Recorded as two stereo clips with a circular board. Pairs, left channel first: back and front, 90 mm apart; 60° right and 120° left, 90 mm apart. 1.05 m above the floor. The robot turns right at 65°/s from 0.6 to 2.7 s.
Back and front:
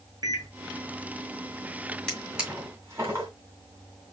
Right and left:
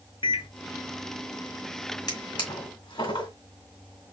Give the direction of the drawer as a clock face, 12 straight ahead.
3 o'clock.